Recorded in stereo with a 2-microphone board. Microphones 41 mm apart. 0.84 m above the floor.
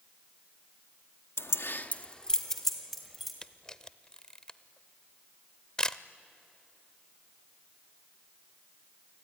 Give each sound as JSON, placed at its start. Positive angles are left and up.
{"t": 1.4, "sound": "keys jangling", "side_deg": 75, "distance_m": 0.7}
{"t": 3.4, "sound": "a camera shutter", "side_deg": 20, "distance_m": 0.6}